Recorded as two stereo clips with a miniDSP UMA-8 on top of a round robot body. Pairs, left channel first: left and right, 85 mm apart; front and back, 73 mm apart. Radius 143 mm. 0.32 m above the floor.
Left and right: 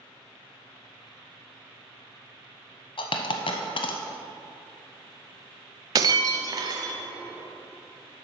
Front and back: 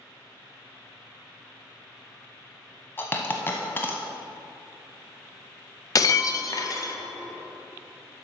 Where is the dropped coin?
65° left, 0.7 m.